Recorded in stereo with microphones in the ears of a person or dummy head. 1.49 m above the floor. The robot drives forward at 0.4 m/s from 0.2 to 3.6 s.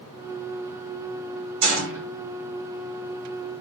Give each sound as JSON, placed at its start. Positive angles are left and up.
{"t": 1.6, "sound": "a gunshot", "side_deg": -70, "distance_m": 1.1}